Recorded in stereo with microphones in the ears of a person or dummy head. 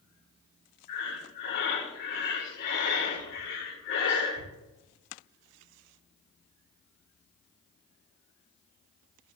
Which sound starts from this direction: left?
Breathing, at 0.9 s.